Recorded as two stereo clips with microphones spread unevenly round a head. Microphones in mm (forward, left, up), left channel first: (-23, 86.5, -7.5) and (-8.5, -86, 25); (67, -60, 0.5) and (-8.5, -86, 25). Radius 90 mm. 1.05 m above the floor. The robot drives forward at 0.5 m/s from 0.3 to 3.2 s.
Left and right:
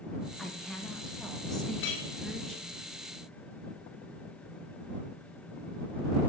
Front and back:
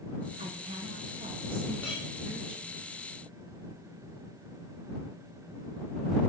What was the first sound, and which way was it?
A woman speaking, 175° left.